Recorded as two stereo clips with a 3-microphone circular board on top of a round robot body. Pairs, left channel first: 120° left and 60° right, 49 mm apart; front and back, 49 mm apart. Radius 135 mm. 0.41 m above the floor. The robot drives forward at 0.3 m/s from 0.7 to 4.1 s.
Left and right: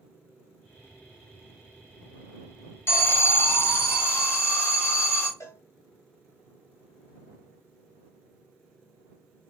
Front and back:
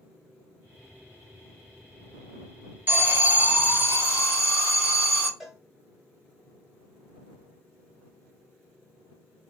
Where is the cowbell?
100° left, 0.9 m.